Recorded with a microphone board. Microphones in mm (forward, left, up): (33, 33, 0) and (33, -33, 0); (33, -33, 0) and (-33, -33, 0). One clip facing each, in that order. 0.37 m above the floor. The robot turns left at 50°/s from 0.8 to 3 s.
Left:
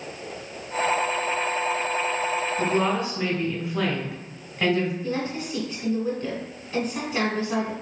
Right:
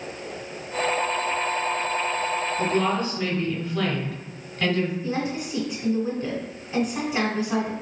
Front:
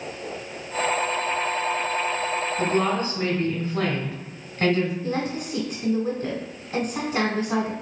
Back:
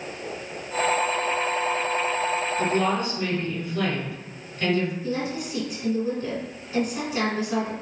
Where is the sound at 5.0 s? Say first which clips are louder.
Right 1 dB, front 1 dB; 10° right, 1.2 m.